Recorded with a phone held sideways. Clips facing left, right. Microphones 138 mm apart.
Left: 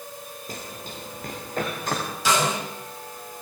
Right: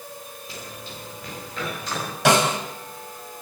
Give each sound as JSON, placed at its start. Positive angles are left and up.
{"t": 0.5, "sound": "running footsteps", "side_deg": 45, "distance_m": 8.0}
{"t": 2.2, "sound": "a snare drum", "side_deg": -70, "distance_m": 5.5}